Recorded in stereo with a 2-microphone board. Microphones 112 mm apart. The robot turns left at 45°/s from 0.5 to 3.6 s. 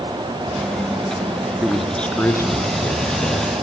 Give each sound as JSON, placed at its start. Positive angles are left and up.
{"t": 1.6, "sound": "a man speaking", "azimuth_deg": -170, "distance_m": 3.0}